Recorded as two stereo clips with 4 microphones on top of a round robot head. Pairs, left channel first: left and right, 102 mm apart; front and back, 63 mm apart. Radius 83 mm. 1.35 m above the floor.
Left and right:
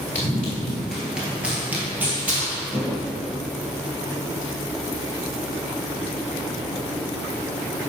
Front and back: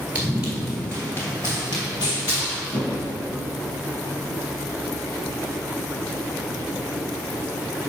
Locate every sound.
0.1 s running footsteps: 155° left, 1.4 m; by 3.1 s 20° right, 3 m